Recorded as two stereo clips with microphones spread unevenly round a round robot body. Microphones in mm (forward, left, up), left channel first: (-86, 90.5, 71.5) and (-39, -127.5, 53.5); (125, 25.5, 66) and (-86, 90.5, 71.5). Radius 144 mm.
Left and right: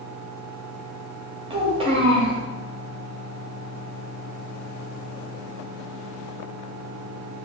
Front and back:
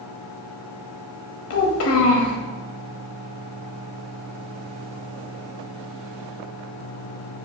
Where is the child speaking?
10° right, 1.0 m.